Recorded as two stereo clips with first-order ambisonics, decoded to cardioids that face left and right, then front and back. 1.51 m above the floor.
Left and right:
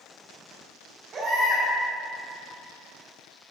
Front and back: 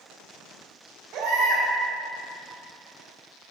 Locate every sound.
1.1 s a baby crying: 150° right, 3 m